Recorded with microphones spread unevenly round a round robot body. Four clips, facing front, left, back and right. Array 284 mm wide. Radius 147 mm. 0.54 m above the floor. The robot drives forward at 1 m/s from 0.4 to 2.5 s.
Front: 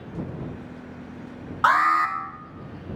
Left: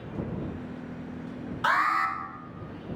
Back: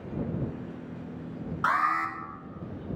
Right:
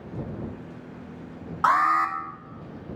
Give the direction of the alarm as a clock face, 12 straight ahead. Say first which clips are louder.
Right 4 dB, front 7 dB; 2 o'clock.